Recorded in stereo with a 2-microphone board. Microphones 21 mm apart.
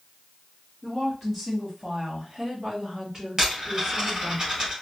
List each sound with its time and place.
0.8 s a woman speaking: 5° right (ahead or behind), 1.1 m; by 4.4 s 15° right (ahead or behind), 2.0 m
3.4 s a dropped coin: 20° right (ahead or behind), 2 m